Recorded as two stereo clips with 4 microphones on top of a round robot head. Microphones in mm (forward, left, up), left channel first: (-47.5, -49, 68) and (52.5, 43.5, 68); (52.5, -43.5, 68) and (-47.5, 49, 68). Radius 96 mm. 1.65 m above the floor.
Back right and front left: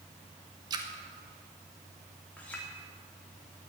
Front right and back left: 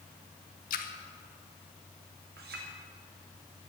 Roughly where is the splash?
Ahead.